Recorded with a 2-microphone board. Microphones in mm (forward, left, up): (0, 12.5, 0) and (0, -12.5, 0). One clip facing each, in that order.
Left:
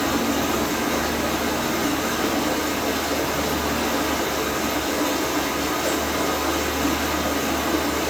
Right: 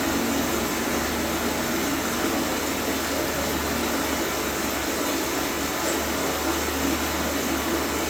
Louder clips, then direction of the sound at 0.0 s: Left 2 dB; 65° left (ahead or behind).